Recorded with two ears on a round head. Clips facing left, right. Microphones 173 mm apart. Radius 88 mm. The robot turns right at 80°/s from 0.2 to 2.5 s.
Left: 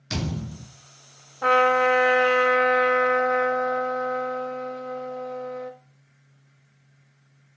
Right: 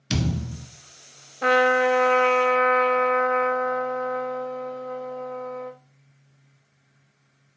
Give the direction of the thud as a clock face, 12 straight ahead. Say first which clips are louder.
Right 3 dB; 1 o'clock.